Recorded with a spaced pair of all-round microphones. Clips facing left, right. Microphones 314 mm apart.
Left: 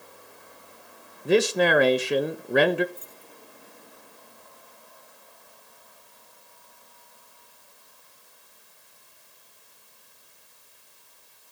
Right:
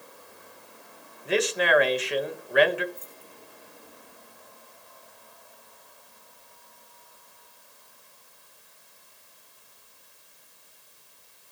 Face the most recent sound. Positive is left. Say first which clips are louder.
# even
turn(degrees=-50)  # may be behind; listen again after turning